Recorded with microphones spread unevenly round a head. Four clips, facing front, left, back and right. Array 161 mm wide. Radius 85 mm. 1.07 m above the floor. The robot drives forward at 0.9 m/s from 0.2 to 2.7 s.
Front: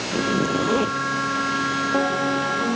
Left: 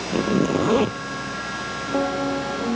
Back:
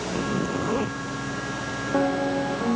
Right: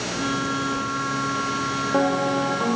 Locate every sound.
0.1 s a zipper: 60° left; by 1.0 s 65° left